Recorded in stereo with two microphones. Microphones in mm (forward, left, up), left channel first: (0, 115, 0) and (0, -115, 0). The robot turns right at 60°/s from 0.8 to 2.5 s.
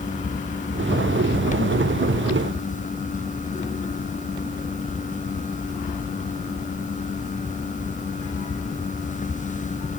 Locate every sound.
Only background noise.